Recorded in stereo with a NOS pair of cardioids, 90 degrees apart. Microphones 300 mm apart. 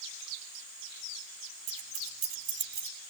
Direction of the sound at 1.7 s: 65° right.